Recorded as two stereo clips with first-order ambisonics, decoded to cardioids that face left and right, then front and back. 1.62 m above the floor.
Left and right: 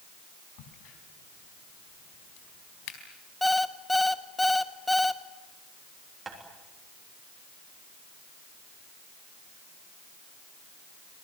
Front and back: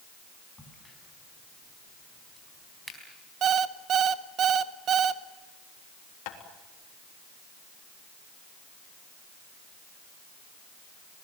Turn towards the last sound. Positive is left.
turn(degrees=-15)